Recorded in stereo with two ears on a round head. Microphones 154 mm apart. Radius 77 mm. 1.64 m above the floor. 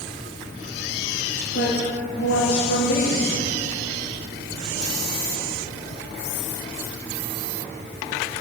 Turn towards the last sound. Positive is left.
turn(degrees=85)